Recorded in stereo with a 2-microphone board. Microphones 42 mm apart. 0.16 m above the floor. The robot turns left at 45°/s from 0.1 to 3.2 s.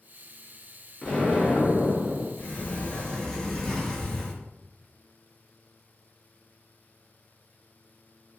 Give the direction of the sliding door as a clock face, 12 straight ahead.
10 o'clock.